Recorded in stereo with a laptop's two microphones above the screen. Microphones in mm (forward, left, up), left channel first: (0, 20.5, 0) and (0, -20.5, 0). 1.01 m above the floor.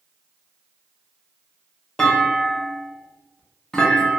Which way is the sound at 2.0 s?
15° left (ahead or behind).